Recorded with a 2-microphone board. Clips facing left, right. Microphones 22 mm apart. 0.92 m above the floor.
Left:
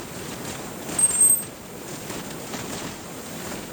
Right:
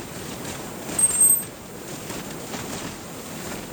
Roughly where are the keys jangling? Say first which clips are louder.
Even; centre.